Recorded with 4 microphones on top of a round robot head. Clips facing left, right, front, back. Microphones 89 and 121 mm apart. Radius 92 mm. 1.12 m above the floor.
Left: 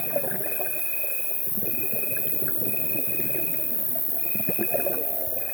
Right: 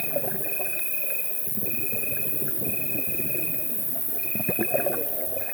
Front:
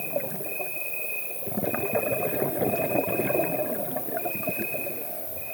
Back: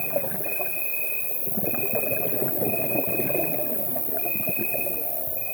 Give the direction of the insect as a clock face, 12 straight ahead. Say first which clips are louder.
Left 1 dB, back 2 dB; 7 o'clock.